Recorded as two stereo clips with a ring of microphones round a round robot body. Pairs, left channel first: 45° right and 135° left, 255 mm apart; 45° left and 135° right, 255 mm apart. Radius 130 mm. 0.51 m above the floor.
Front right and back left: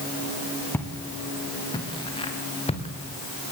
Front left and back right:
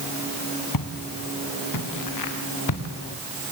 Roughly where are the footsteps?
Ahead left.